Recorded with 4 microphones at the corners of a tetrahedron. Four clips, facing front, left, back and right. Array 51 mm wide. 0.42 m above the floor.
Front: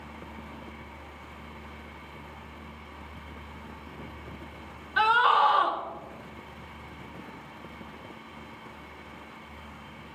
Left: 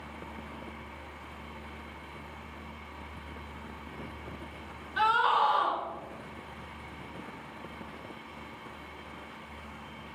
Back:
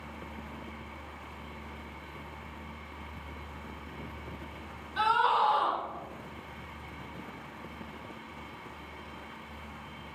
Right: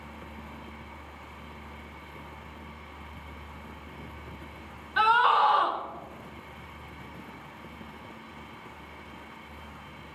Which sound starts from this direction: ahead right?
A scream, at 5.0 s.